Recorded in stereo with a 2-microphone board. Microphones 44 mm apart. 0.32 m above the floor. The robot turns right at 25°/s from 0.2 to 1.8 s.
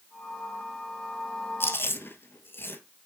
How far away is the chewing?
About 1.3 m.